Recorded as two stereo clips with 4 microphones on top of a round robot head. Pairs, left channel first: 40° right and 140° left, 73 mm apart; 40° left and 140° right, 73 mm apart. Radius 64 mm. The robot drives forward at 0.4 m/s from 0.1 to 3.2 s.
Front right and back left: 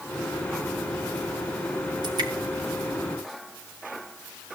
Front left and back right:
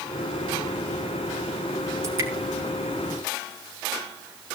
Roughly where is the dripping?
Behind.